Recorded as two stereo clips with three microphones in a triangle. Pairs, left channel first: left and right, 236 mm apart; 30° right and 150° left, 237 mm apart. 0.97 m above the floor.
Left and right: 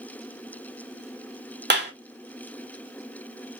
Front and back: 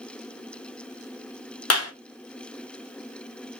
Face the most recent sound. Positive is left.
turn(degrees=-40)